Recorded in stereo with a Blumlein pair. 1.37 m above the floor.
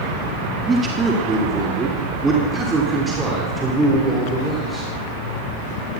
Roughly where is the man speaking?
Ahead.